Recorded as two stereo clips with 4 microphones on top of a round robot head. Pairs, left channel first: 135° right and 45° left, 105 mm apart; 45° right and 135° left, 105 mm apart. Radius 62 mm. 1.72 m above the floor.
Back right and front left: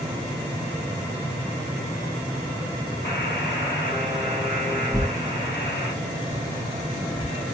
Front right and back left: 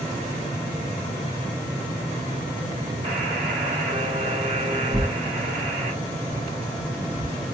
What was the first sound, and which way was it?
A buzzer, straight behind.